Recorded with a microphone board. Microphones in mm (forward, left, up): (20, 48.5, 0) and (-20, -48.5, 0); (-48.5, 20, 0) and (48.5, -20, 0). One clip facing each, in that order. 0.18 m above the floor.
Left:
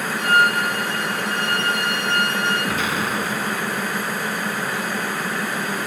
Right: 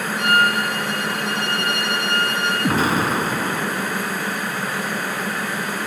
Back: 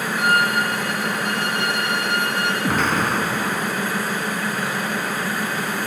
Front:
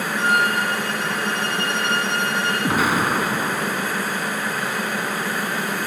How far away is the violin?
About 7 m.